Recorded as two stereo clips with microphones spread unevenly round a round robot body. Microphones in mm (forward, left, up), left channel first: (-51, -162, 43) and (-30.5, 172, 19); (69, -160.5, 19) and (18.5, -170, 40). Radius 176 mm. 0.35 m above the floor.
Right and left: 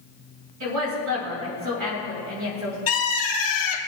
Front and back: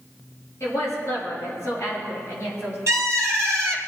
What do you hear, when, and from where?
0.6 s a woman speaking: 125° left, 6 m
2.9 s a bird: 140° right, 2.5 m